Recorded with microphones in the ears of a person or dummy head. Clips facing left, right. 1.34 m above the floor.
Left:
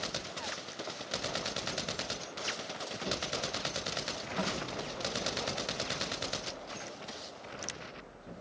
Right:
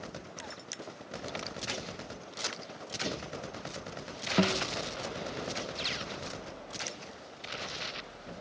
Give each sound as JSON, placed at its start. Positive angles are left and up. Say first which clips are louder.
{"t": 3.0, "sound": "a drawer", "louder": "right 1 dB", "side_deg": -80, "distance_m": 7.5}
{"t": 4.4, "sound": "a guitar", "louder": "right 9 dB", "side_deg": -45, "distance_m": 0.5}